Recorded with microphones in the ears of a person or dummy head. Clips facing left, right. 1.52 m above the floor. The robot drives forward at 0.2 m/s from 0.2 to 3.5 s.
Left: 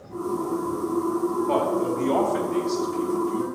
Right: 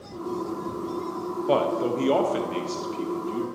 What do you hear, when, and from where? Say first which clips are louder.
1.5 s a man speaking: right 4 dB; 50° right (ahead or behind), 0.8 m; by 3.5 s 35° right (ahead or behind), 1.0 m